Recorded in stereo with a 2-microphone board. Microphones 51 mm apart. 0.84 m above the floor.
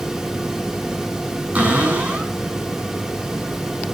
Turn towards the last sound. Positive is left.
turn(degrees=-25)  # may be behind; listen again after turning